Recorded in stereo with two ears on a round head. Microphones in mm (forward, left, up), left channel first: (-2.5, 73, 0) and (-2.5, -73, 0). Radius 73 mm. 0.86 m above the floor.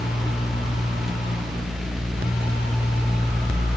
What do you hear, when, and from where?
Only background noise.